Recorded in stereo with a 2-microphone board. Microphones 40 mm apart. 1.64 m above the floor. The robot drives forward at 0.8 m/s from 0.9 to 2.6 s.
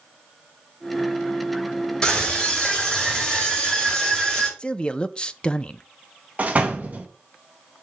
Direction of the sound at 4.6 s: 25° left (ahead or behind).